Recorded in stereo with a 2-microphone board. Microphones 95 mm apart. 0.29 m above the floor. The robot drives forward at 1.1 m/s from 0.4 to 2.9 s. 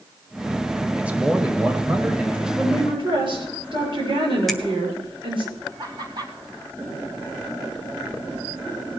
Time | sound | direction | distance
1.0 | a man speaking | 15° right (ahead or behind) | 1.5 m
2.6 | a woman speaking | 65° right (ahead or behind) | 7 m
4.5 | a finger snap | 5° left (ahead or behind) | 1.2 m
5.8 | laughter | 50° right (ahead or behind) | 3.5 m